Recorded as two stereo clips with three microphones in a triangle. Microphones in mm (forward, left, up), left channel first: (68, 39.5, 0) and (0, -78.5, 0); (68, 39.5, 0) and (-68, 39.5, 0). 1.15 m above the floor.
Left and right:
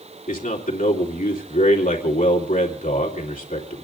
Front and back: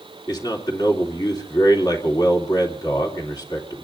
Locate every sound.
0.3 s a man speaking: 60° left, 3 m